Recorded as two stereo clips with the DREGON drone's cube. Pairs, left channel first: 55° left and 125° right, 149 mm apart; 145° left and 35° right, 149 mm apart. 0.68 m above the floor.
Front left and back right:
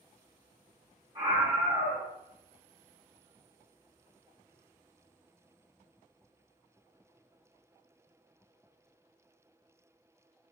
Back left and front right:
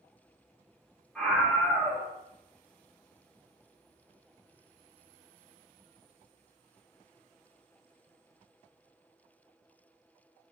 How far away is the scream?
About 1.2 m.